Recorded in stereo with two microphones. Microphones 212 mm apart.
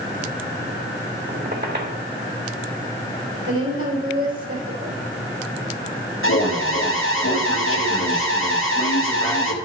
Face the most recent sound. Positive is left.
turn(degrees=70)  # may be behind; listen again after turning